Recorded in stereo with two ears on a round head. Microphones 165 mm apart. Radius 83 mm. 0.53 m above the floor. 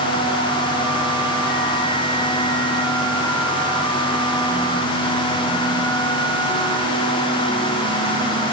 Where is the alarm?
No alarm in this recording.